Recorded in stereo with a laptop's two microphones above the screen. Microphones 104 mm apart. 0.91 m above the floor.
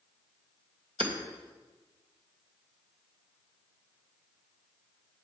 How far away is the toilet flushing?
I don't hear a toilet flushing.